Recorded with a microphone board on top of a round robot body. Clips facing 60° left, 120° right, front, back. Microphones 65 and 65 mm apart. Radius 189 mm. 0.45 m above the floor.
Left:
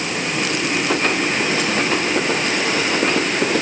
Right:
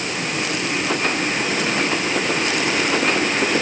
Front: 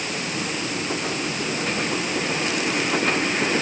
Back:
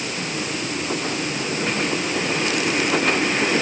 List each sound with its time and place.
Only background noise.